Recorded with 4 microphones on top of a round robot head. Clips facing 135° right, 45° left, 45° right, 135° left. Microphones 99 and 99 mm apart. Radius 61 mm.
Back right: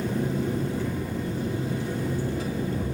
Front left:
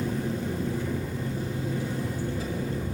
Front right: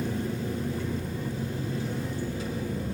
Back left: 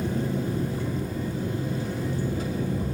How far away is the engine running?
About 2 m.